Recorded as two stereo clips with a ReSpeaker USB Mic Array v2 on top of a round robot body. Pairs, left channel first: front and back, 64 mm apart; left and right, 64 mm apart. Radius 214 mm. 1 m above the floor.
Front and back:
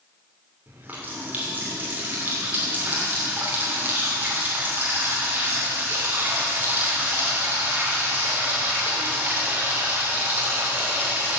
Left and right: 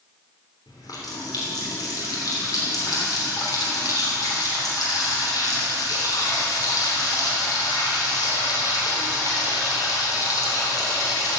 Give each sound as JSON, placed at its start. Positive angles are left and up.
{"t": 0.7, "sound": "a running tap", "azimuth_deg": 115, "distance_m": 3.0}